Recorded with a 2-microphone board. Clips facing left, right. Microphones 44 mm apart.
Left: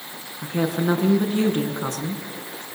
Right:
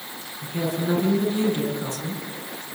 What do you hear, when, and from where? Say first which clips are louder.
0.4 s a woman speaking: left 4 dB; 55° left (ahead or behind), 6 m